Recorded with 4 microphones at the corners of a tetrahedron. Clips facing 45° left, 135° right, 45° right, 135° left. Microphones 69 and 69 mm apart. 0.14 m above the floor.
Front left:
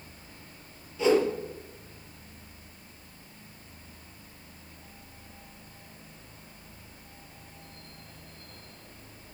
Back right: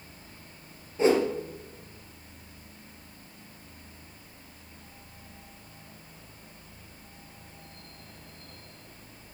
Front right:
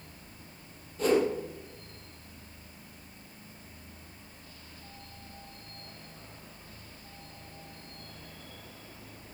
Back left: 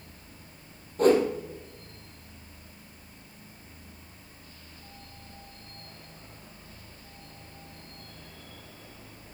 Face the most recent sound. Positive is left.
turn(degrees=175)